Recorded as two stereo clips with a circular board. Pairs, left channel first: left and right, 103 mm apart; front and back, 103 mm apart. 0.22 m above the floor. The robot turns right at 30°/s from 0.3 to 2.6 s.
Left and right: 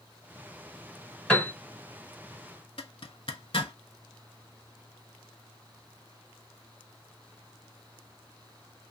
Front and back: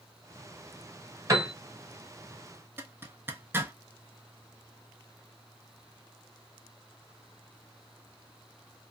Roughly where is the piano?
Behind left.